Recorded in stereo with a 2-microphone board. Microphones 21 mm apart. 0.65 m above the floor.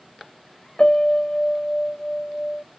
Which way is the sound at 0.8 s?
45° left (ahead or behind).